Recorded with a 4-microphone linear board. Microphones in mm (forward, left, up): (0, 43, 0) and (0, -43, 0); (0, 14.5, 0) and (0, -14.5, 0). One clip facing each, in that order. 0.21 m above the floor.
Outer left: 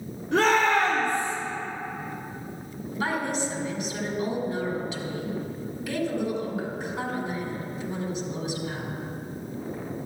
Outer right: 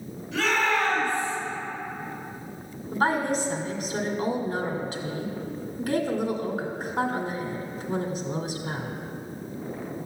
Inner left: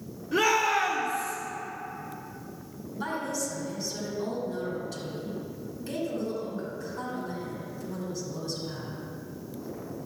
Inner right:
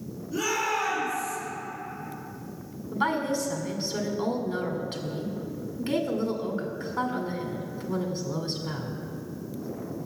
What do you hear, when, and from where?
0.3 s a shout: 65° left (ahead or behind), 4 m
2.9 s a woman speaking: 45° right (ahead or behind), 1.9 m